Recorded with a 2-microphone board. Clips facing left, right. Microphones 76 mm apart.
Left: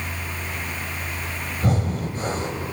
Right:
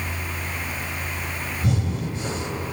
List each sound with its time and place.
1.6 s breathing: 50° left (ahead or behind), 2.5 m